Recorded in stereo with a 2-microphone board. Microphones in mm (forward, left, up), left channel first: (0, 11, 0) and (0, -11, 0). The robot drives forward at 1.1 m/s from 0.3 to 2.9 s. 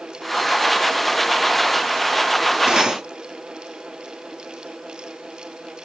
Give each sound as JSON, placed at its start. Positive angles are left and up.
{"t": 2.7, "sound": "cutlery clinking", "side_deg": -50, "distance_m": 1.4}